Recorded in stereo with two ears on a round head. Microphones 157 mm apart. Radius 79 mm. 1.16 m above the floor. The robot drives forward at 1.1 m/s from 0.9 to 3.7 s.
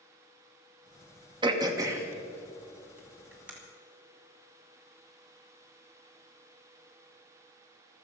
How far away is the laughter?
No laughter in this recording.